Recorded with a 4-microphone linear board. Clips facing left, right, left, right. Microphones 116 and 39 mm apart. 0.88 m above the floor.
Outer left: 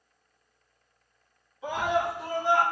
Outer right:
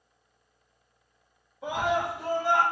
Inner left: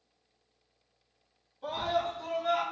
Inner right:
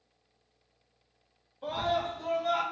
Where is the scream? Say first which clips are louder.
Even, inner right 1 dB; 60° right (ahead or behind), 1.6 m; by 2.6 s 70° right (ahead or behind), 2.5 m.